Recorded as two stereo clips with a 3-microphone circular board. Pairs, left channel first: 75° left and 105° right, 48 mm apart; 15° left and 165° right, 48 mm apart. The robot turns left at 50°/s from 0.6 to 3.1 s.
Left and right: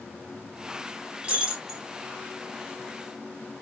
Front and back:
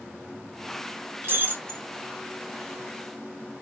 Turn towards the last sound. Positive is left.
turn(degrees=110)